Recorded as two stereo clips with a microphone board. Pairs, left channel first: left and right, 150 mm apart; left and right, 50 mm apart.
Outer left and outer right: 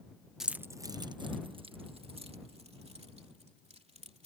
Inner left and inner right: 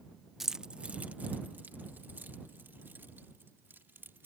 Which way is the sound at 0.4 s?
5° right (ahead or behind).